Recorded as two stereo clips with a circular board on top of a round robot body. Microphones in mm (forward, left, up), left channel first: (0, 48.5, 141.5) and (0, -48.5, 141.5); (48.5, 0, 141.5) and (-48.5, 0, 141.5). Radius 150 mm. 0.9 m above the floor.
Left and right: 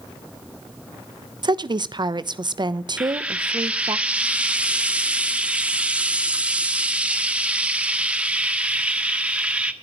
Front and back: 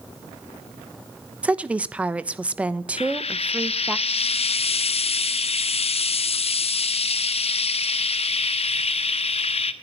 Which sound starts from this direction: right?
A woman speaking, at 1.4 s.